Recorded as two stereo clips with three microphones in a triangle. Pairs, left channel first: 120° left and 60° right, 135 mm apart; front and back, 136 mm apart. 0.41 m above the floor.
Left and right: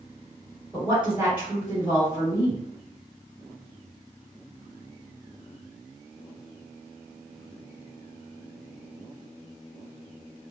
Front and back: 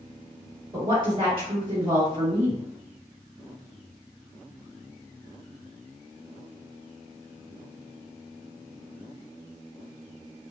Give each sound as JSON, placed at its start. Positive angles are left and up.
{"t": 0.7, "sound": "a woman speaking", "azimuth_deg": -135, "distance_m": 1.9}